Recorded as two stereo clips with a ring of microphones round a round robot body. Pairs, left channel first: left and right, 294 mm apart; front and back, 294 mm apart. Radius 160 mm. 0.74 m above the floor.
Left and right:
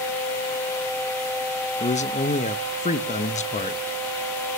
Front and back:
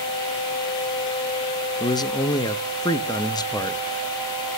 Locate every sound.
1.8 s a man speaking: 60° left, 0.9 m